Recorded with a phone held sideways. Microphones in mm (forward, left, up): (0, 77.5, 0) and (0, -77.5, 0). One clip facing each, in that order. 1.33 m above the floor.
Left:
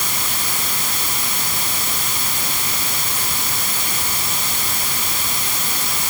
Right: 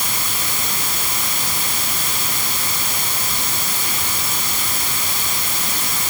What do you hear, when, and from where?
Only background noise.